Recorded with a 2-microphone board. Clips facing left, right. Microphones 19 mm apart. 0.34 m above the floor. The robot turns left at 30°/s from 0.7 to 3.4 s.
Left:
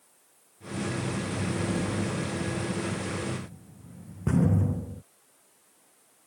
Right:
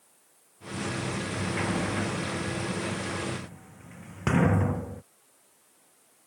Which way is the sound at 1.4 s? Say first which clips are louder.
Right 2 dB; 45° right (ahead or behind).